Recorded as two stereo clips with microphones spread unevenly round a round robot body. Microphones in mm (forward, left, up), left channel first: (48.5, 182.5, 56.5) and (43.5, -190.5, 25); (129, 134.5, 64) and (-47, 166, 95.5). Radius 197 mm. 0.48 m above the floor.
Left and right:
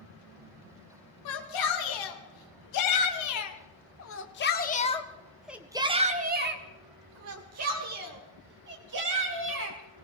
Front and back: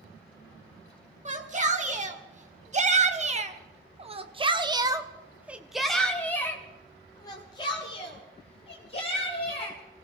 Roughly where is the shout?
Behind left.